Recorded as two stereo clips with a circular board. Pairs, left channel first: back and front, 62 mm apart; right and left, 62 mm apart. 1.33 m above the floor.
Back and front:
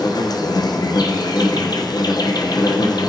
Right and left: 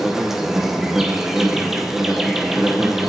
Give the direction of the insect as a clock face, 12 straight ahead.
6 o'clock.